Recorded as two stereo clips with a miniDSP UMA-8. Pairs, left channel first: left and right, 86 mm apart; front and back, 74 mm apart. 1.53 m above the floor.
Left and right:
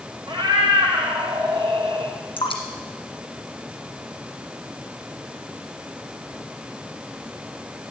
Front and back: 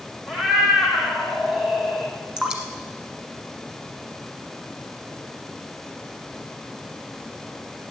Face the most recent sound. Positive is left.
turn(degrees=105)